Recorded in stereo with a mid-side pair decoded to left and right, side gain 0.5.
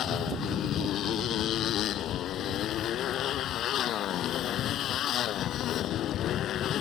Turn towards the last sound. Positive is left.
turn(degrees=60)